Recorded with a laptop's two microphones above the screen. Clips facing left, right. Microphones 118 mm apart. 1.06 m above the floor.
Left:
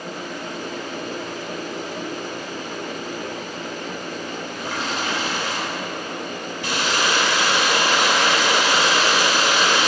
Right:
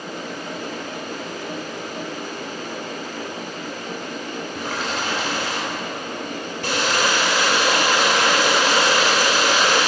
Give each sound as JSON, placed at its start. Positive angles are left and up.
{"t": 4.5, "sound": "a running tap", "side_deg": -65, "distance_m": 2.5}